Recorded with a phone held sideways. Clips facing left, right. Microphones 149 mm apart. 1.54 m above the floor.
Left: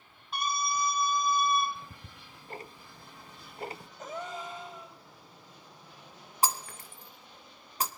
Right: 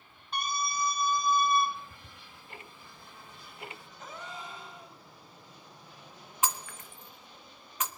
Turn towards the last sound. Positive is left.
turn(degrees=35)  # may be behind; listen again after turning